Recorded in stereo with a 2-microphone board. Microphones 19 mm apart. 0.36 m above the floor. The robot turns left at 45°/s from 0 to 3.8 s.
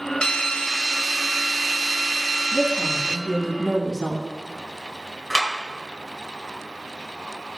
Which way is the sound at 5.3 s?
15° left (ahead or behind).